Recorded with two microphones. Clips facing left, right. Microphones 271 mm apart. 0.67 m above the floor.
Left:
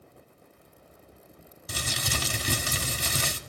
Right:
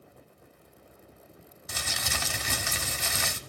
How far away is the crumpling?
About 0.8 m.